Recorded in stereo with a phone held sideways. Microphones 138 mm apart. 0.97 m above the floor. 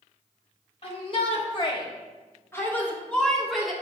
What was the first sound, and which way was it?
A shout, 40° left (ahead or behind).